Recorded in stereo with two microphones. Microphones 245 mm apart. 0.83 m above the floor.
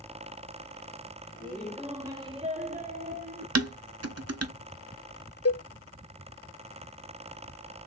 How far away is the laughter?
About 0.8 m.